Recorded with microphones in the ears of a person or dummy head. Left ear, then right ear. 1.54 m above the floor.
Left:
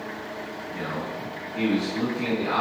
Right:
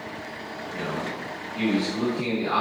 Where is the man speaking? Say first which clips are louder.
Right 1 dB; 10° right (ahead or behind), 1.5 m.